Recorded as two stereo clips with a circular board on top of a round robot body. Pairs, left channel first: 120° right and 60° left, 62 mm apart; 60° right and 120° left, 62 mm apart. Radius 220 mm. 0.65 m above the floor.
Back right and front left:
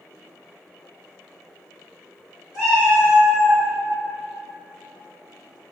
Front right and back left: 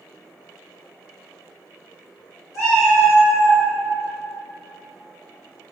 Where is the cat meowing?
15° right, 1.3 m; by 3.6 s 20° left, 1.3 m.